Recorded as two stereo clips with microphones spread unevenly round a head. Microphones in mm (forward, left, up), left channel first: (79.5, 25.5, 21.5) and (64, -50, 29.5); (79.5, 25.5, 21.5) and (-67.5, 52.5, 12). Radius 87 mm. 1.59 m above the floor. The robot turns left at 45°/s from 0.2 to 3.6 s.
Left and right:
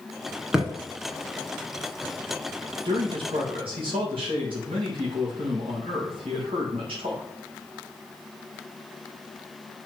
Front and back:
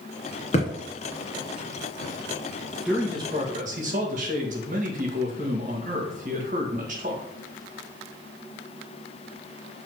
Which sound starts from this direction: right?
A man speaking, at 2.9 s.